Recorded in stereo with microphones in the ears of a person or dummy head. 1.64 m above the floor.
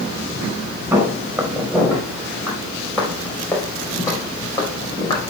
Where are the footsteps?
10° right (ahead or behind), 4.5 m; by 5.3 s 25° left (ahead or behind), 4 m.